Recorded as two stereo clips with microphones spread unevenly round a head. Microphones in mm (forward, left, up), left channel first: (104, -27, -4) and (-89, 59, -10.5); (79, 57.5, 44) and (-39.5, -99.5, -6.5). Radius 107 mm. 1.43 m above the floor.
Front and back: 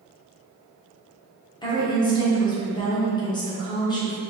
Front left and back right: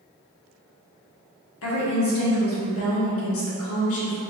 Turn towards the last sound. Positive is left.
turn(degrees=45)